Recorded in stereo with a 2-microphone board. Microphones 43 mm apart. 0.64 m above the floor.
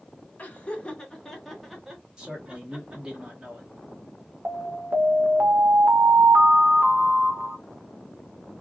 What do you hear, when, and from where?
0.4 s laughter: 35° left (ahead or behind), 0.9 m; by 3.2 s 25° right (ahead or behind), 1.4 m
2.2 s a man speaking: 20° right (ahead or behind), 1.1 m
4.5 s an alarm: 55° right (ahead or behind), 0.7 m